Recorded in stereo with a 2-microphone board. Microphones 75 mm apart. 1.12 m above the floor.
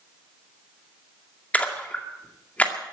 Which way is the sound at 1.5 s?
20° left (ahead or behind).